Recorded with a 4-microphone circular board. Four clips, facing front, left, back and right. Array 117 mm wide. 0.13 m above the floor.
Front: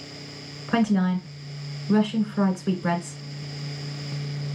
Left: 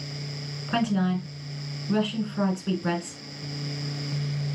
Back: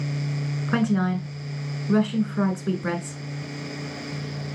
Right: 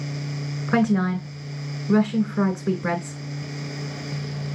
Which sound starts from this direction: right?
A woman speaking, at 0.7 s.